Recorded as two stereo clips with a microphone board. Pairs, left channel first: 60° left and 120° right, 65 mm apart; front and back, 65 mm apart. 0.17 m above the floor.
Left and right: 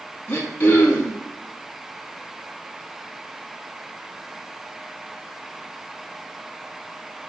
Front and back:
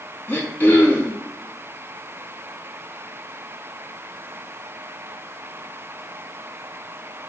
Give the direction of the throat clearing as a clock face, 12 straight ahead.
11 o'clock.